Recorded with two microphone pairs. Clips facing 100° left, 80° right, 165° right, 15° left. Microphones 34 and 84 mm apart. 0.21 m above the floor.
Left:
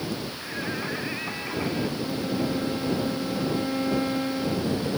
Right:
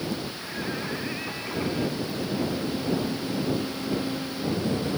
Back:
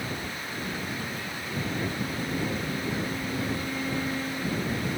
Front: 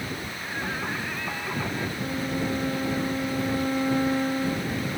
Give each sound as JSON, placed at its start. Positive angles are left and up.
{"t": 0.4, "sound": "singing", "azimuth_deg": 25}
{"t": 2.0, "sound": "a violin", "azimuth_deg": 50}